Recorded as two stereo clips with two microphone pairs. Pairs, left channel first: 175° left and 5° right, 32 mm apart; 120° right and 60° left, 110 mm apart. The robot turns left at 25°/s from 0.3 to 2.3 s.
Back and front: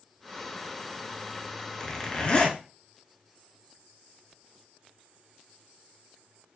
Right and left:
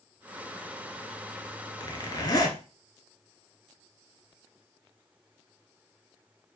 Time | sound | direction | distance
1.8 | a zipper | 140° right | 0.7 m